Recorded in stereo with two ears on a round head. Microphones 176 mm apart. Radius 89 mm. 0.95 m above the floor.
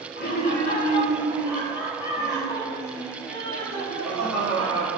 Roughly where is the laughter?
Left.